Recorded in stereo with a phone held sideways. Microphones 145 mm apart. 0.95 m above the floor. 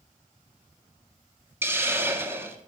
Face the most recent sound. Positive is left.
turn(degrees=-15)  # may be behind; listen again after turning